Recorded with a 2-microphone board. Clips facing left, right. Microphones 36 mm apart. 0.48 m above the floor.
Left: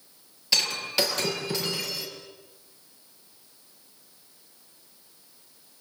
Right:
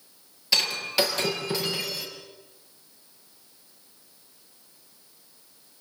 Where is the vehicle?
No vehicle in this recording.